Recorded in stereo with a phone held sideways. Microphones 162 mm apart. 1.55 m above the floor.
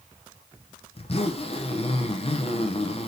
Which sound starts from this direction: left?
A zipper, at 0.9 s.